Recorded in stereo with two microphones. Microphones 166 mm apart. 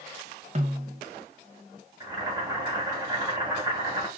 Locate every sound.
0.6 s a snare drum: 40° right (ahead or behind), 0.7 m
2.0 s boiling: 20° right (ahead or behind), 1.3 m